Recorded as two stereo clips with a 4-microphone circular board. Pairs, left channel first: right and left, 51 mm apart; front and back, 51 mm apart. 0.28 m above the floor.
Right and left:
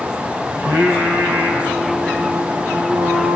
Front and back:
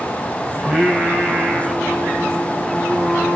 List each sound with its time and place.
0.6 s singing: 90° left, 1.8 m